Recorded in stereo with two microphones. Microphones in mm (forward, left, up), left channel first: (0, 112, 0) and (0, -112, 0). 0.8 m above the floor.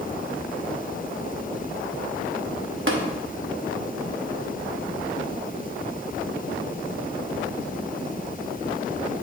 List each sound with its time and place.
2.9 s tapping: 65° right (ahead or behind), 1.0 m